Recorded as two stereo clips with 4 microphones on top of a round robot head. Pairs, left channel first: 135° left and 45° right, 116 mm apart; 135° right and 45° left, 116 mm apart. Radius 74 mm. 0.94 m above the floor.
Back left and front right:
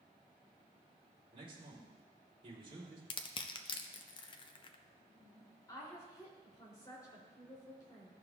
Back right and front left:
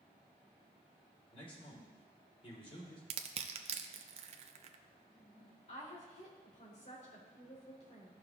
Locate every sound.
1.3 s a man speaking: 90° right, 3 m
3.1 s crushing: 85° left, 0.6 m
5.7 s a woman speaking: 165° right, 3 m